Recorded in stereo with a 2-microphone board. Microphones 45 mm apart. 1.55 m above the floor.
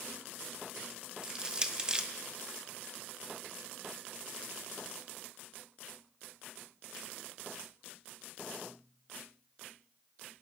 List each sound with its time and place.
1.2 s crushing: 20° right (ahead or behind), 0.5 m